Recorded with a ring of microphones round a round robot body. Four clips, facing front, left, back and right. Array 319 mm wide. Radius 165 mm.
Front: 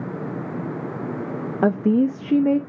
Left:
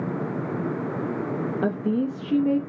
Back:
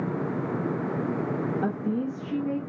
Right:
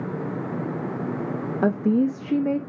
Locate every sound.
1.6 s a woman speaking: 15° right, 0.6 m